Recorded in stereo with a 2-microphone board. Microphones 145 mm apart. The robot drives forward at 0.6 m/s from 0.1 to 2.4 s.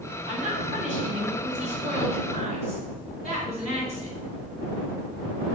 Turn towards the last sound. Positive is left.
turn(degrees=-50)  # may be behind; listen again after turning